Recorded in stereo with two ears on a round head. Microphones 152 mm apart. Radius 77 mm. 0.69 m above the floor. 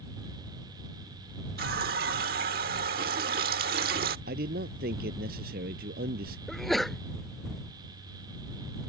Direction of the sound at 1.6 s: 55° right (ahead or behind).